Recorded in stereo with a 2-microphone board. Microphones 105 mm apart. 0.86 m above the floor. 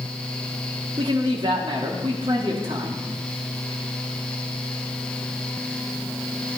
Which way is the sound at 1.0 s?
60° right (ahead or behind).